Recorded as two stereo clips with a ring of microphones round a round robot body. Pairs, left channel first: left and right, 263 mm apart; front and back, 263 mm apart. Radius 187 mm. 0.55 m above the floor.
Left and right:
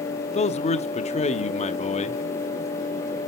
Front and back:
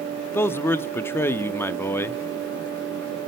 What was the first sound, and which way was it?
A man speaking, 70° left.